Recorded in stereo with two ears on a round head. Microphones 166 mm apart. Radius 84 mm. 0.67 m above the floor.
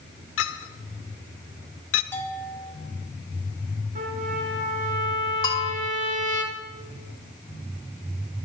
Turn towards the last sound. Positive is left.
turn(degrees=20)  # may be behind; listen again after turning